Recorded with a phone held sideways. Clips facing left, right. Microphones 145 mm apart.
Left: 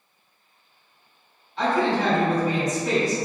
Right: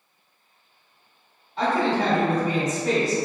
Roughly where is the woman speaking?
Right.